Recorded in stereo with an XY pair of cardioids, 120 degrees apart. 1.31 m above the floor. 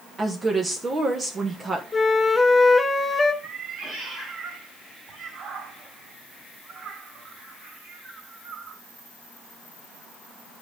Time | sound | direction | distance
0.2 | a woman speaking | 25° right | 1.1 m
1.9 | a flute | 15° left | 0.9 m
3.4 | a cat meowing | 55° right | 3.5 m